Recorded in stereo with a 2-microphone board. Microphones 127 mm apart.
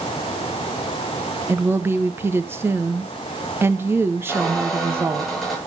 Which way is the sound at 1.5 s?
20° right (ahead or behind).